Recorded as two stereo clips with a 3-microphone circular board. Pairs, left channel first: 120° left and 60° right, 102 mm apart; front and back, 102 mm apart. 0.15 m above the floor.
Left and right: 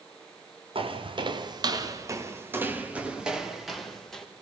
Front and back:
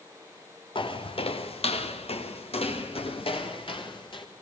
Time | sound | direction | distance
0.8 | footsteps | 35° right | 2.5 m